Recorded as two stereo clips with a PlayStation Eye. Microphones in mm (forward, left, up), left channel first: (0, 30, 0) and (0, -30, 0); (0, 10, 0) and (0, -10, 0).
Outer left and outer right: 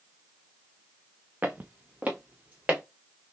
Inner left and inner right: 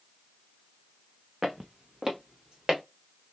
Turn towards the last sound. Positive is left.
turn(degrees=-25)  # may be behind; listen again after turning